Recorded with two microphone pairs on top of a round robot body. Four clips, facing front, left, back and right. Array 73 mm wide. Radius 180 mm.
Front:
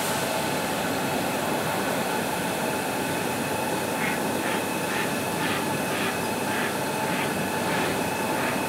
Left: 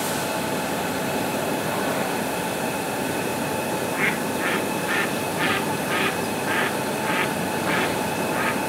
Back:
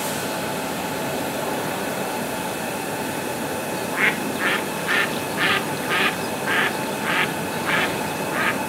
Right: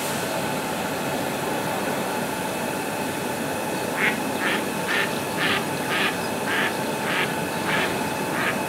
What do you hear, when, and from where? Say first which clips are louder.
3.7 s a bird: right 1 dB, back 4 dB; 170° left, 1.5 m